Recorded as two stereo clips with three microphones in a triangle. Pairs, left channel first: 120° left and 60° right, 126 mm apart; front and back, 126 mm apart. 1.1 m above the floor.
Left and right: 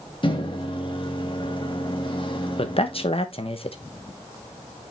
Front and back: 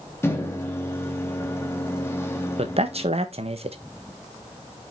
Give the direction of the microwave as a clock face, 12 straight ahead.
10 o'clock.